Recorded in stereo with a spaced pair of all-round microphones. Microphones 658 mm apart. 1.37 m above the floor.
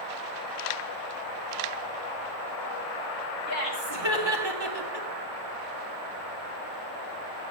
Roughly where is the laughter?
Right.